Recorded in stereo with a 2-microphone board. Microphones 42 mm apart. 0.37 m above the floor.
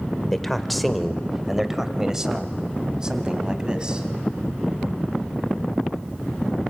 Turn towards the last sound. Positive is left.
turn(degrees=-20)  # may be behind; listen again after turning